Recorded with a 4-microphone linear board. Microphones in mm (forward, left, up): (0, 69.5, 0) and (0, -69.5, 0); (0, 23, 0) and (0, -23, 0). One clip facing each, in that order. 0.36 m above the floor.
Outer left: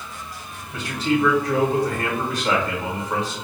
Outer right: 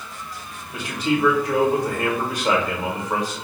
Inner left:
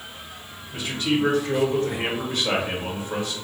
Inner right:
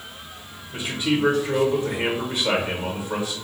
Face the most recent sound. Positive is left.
turn(degrees=-10)  # may be behind; listen again after turning